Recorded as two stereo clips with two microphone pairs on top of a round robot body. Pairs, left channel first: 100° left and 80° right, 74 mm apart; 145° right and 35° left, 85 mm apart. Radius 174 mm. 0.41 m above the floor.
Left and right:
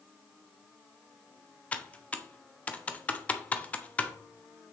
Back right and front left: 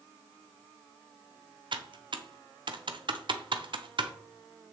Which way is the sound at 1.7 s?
30° left.